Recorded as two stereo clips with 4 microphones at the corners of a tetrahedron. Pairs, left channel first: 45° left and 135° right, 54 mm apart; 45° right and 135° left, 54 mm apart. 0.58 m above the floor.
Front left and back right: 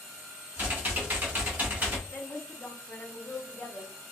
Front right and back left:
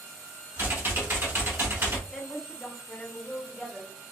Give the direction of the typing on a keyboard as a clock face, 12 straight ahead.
6 o'clock.